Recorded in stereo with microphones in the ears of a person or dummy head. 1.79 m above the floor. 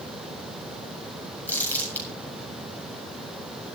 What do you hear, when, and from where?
1.5 s crumpling: 15° left (ahead or behind), 7.5 m